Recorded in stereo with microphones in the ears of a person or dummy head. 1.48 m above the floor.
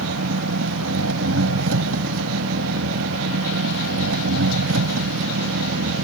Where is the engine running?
85° right.